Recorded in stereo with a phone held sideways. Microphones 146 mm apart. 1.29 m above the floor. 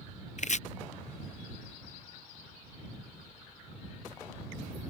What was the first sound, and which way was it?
Chopping, 55° left (ahead or behind).